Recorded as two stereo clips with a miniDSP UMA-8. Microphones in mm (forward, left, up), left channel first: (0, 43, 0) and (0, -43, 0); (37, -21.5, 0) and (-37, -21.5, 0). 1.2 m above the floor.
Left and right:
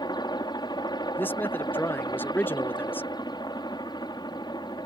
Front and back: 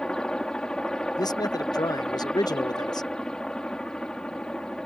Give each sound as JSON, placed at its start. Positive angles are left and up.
{"t": 0.0, "sound": "a helicopter", "azimuth_deg": 80}
{"t": 1.2, "sound": "a man speaking", "azimuth_deg": 25}